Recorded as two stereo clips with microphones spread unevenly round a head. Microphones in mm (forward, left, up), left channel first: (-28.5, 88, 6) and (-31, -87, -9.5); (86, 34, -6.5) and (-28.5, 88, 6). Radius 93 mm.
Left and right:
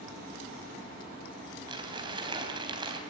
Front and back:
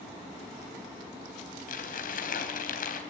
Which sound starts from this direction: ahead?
Crumpling, at 1.7 s.